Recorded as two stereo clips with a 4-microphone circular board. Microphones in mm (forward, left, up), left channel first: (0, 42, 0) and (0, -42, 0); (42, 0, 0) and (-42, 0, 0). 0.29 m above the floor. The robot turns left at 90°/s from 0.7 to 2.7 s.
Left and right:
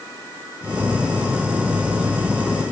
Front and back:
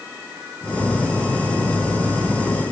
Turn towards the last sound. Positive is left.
No sound to turn to.